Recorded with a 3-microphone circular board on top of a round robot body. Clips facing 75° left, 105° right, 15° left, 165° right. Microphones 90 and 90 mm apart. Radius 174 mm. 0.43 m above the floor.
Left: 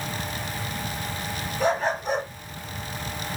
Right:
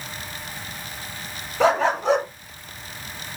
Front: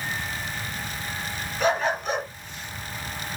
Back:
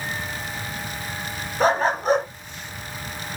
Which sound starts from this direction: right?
A dog barking, at 1.6 s.